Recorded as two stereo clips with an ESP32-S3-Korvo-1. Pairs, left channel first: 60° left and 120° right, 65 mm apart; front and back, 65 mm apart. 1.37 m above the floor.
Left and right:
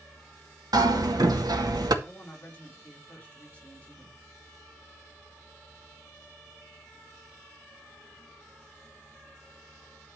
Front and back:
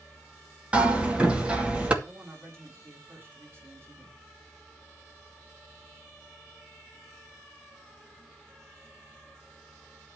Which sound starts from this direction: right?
Hammering, at 0.7 s.